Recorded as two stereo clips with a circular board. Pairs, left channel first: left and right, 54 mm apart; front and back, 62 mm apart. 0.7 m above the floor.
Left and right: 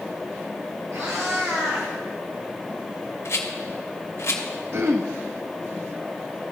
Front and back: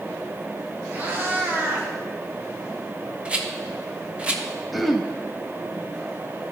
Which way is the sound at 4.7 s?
90° right.